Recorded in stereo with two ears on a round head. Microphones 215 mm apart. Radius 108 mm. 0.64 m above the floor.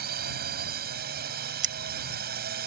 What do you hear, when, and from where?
0.0 s a drone: 40° right (ahead or behind)
1.6 s scissors: 50° right (ahead or behind)